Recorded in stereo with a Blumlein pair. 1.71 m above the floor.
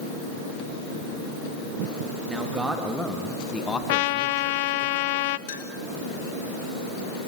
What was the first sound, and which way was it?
A man speaking, 10° right.